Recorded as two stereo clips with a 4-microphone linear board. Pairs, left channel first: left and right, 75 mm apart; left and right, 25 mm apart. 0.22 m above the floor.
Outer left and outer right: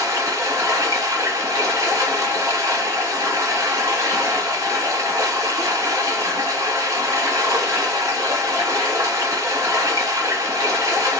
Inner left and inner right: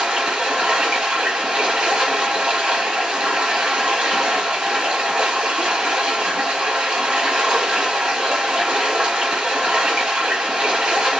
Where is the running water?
45° right (ahead or behind), 1.7 m.